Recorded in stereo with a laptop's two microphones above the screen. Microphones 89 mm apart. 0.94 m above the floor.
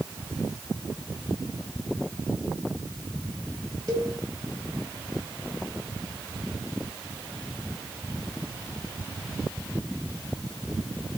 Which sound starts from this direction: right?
A cowbell, at 3.9 s.